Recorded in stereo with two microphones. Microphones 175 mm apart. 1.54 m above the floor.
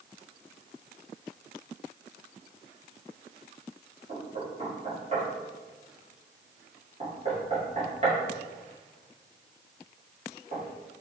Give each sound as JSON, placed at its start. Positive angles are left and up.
{"t": 4.1, "sound": "knocking", "side_deg": -40, "distance_m": 1.5}